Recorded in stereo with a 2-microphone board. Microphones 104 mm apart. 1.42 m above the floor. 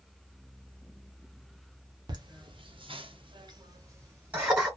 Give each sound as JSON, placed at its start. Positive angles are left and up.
{"t": 2.1, "sound": "laughter", "side_deg": -45, "distance_m": 1.1}